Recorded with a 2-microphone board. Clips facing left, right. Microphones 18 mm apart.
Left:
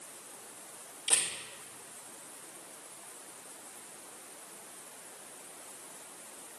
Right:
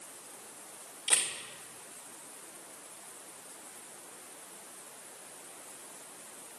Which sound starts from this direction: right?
A camera shutter, at 1.1 s.